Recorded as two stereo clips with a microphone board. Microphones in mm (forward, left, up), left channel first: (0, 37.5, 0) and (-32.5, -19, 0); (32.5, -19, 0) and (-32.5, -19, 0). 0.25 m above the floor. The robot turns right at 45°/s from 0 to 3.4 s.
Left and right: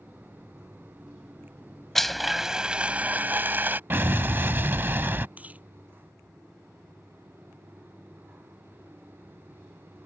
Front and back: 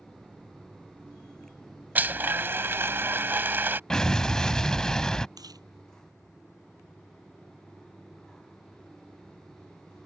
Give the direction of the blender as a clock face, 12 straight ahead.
7 o'clock.